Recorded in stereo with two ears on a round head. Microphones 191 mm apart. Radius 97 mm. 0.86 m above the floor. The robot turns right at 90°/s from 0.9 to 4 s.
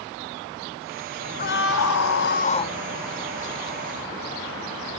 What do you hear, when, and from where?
1.4 s a scream: 40° left; by 2.8 s 165° left